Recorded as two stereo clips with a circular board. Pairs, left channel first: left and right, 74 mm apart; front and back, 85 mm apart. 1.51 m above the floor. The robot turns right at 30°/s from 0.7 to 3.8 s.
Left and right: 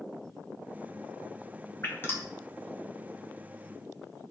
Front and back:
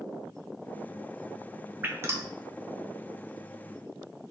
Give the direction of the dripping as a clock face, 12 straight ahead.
8 o'clock.